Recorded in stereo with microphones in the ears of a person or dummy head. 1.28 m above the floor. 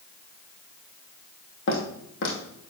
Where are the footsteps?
60° left (ahead or behind), 2.5 m.